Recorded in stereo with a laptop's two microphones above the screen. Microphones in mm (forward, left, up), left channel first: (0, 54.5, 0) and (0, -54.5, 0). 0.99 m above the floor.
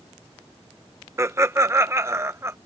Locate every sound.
1.2 s laughter: 25° right (ahead or behind)